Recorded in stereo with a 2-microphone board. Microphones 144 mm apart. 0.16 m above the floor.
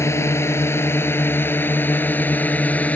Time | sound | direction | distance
0.0 | a drone | 15° left (ahead or behind) | ?